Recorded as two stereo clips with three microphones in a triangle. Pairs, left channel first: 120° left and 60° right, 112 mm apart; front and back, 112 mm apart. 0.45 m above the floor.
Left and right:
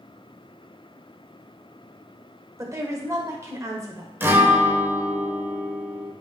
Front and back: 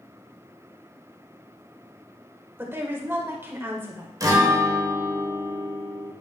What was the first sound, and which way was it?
A woman speaking, 115° right.